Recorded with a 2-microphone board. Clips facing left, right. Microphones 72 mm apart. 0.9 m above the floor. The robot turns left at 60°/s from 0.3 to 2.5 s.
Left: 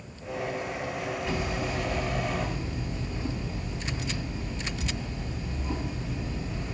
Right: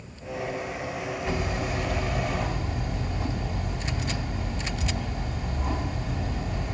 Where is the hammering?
35° right, 2.5 m; by 6.8 s 110° right, 2.5 m.